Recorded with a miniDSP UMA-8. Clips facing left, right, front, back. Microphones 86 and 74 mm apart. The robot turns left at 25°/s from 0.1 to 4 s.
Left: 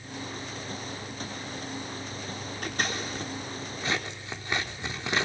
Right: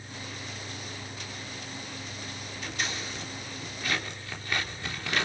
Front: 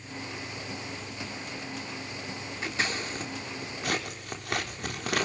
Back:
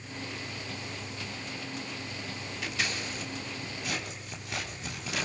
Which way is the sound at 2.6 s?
55° left.